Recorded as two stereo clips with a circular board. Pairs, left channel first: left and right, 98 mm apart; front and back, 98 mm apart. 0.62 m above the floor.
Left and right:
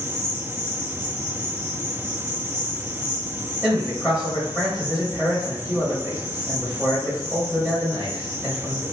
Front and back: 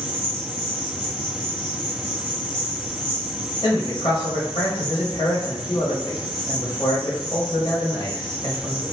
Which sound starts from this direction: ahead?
A man speaking, at 3.6 s.